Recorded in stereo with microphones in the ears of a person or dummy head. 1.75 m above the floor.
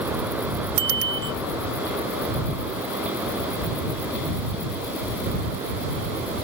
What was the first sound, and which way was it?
A bicycle bell, 65° right (ahead or behind).